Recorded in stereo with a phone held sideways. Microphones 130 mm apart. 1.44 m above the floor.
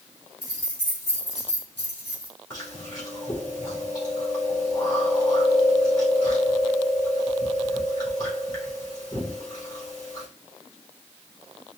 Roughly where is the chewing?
Left.